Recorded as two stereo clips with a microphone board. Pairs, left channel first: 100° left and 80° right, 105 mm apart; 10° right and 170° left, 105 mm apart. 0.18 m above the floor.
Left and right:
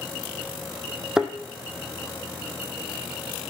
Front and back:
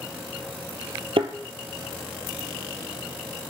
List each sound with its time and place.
1.2 s a thud: 160° right, 0.8 m